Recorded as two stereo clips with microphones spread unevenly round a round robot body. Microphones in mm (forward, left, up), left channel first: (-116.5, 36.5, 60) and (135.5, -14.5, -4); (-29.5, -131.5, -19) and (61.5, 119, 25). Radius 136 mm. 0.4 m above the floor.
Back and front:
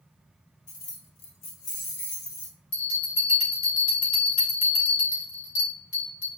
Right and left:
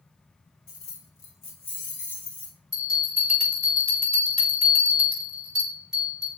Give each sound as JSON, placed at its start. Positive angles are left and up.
{"t": 0.7, "sound": "keys jangling", "azimuth_deg": -135, "distance_m": 0.6}
{"t": 2.7, "sound": "a bell", "azimuth_deg": 165, "distance_m": 1.9}